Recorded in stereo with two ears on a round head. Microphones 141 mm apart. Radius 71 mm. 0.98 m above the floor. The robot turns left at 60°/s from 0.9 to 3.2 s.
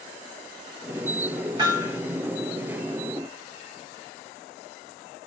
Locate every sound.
1.6 s hammering: 30° right (ahead or behind), 9.5 m; by 2.0 s 5° right (ahead or behind), 9.5 m